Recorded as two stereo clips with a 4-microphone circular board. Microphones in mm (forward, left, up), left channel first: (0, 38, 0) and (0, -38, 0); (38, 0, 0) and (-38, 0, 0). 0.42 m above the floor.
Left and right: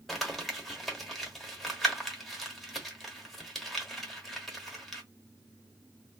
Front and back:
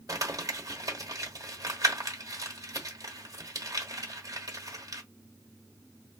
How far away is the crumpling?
About 1.0 m.